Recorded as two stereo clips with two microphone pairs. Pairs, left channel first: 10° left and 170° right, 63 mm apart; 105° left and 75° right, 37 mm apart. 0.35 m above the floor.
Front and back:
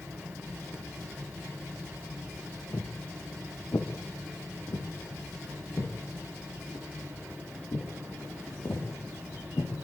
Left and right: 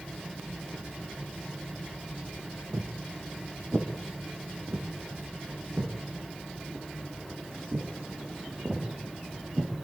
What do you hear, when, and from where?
2.7 s footsteps: 35° right, 3 m; by 9.7 s 25° right, 7.5 m